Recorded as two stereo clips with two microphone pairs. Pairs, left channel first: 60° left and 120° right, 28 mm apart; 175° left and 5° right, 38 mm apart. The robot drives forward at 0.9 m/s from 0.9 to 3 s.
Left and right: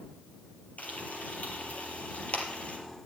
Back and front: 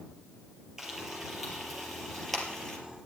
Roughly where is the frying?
Left.